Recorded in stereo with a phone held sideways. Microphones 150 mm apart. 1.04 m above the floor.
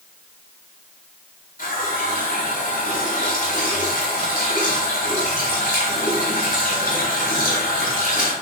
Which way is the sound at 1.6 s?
75° left (ahead or behind).